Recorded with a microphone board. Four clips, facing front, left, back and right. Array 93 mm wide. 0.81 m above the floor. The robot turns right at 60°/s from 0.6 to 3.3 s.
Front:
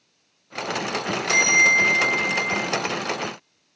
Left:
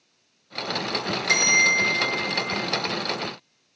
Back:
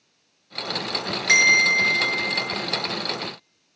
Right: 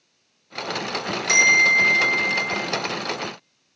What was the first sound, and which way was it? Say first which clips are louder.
A bell: right 4 dB, even; 175° right.